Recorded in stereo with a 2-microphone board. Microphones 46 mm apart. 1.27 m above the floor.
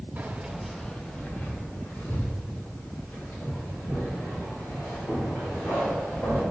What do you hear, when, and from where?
0.2 s keys jangling: 40° right (ahead or behind), 0.8 m; by 6.4 s 70° left (ahead or behind), 6.5 m